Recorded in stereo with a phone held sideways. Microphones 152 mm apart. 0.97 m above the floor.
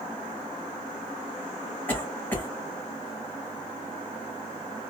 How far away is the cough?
About 1.5 m.